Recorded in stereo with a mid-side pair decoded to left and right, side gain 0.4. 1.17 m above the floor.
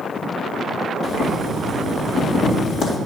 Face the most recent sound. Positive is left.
turn(degrees=70)